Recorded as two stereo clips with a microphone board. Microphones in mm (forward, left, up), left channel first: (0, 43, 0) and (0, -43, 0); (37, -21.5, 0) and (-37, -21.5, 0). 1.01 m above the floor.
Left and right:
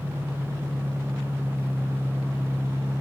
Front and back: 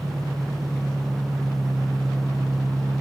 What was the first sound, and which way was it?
An engine running, 140° right.